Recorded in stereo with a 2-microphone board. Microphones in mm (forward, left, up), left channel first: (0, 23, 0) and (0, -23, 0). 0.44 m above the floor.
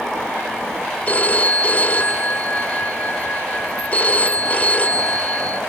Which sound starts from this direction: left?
A phone ringing, at 1.1 s.